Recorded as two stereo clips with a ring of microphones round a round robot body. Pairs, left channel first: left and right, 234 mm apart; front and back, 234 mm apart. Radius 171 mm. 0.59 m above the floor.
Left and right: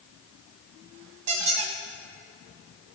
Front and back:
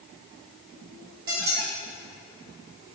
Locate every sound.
1.3 s a squeak: 120° right, 1.9 m